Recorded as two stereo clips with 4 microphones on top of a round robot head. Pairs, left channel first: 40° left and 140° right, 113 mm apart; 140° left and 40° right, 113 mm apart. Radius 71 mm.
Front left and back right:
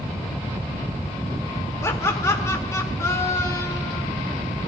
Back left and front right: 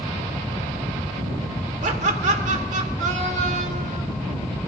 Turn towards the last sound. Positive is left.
turn(degrees=-25)